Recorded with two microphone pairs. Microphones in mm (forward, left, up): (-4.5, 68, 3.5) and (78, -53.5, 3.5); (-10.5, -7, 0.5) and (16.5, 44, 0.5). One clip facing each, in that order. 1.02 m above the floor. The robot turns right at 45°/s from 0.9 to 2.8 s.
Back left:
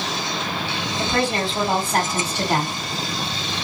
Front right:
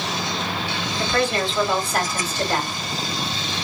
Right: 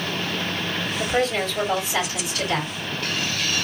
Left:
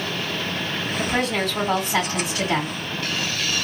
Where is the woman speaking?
55° left, 2.5 m; by 2.7 s 135° left, 2.5 m.